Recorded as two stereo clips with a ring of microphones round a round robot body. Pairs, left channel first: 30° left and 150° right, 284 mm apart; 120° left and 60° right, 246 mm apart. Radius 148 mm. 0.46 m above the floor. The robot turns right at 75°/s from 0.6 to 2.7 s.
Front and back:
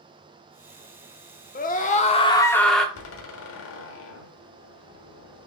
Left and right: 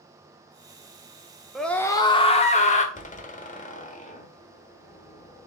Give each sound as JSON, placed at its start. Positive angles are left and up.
{"t": 1.6, "sound": "a scream", "azimuth_deg": 30, "distance_m": 0.8}
{"t": 3.0, "sound": "a door slam", "azimuth_deg": 65, "distance_m": 1.2}